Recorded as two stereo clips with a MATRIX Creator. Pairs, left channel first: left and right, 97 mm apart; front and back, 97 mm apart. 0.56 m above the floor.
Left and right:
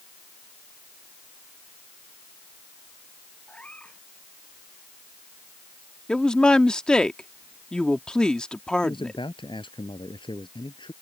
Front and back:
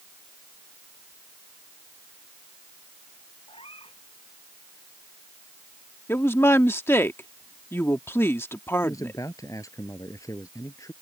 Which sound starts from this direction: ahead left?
A man speaking, at 8.8 s.